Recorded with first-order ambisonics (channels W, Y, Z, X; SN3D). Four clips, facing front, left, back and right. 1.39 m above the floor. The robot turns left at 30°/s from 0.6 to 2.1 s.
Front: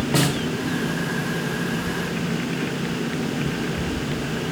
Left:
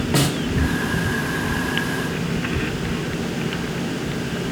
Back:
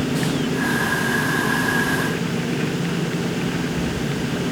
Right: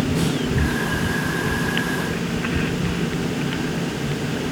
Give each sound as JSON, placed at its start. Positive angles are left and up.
{"t": 0.1, "sound": "a snare drum", "azimuth_deg": 55, "distance_m": 3.0}